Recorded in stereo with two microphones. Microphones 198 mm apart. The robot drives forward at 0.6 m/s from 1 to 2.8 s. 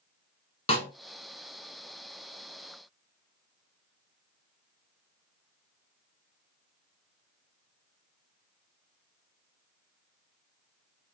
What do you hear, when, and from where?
0.7 s a snare drum: 35° left (ahead or behind), 0.8 m